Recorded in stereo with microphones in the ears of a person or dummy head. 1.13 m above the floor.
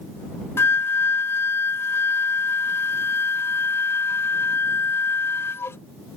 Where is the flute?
10° left (ahead or behind).